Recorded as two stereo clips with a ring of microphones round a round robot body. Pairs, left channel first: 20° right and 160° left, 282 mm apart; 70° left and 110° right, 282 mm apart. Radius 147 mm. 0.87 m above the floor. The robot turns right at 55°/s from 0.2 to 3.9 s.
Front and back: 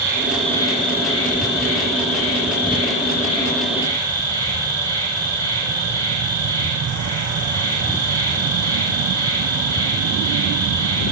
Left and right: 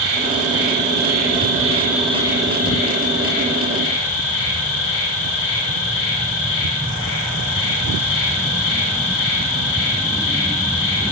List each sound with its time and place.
0.0 s an insect: 120° right, 5.5 m; by 11.1 s 80° left, 5.5 m